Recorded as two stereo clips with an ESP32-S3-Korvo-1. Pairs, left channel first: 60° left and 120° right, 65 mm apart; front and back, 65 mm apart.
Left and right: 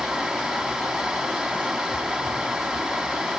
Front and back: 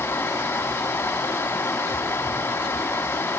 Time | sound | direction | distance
0.0 | running water | 45° right | 1.6 m